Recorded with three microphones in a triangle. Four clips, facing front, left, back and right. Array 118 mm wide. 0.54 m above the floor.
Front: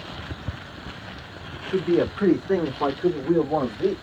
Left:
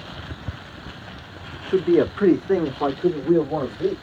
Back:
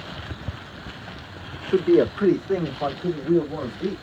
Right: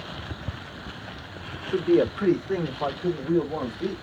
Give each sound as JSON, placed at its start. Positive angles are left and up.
{"t": 1.7, "sound": "a man speaking", "azimuth_deg": 125, "distance_m": 0.9}